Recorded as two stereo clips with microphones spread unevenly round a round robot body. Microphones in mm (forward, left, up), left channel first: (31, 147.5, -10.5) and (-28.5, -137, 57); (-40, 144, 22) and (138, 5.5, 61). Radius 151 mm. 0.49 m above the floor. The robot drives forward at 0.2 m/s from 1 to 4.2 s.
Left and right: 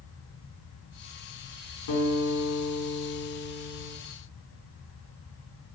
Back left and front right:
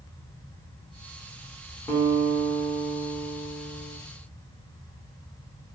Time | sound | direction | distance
1.9 | a guitar | 65° left | 5.5 m